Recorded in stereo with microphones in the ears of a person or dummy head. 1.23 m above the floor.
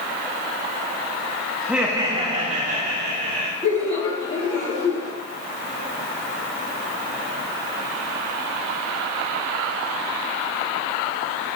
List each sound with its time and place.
1.6 s laughter: 5° left (ahead or behind), 0.9 m; by 3.5 s 65° right (ahead or behind), 2 m
3.6 s laughter: 25° left (ahead or behind), 3 m